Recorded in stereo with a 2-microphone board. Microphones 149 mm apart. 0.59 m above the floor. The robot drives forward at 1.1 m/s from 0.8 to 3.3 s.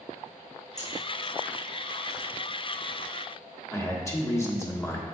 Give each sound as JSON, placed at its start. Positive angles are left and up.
{"t": 0.8, "sound": "scissors", "side_deg": 50, "distance_m": 1.5}
{"t": 3.7, "sound": "a man speaking", "side_deg": 20, "distance_m": 1.3}